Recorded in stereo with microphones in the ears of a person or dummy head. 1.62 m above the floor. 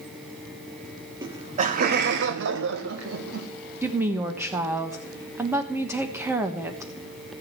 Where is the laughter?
25° right (ahead or behind), 0.9 m; by 3.5 s 85° right, 1.9 m.